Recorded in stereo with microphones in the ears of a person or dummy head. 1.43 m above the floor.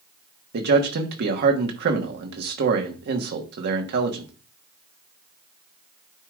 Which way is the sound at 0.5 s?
60° right (ahead or behind).